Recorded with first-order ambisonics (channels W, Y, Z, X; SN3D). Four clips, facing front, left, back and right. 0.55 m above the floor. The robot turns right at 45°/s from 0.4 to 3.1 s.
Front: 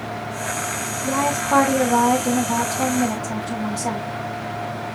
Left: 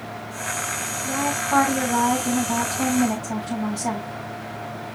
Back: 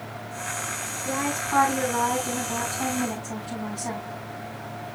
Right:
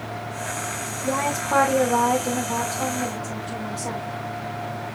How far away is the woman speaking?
About 4 m.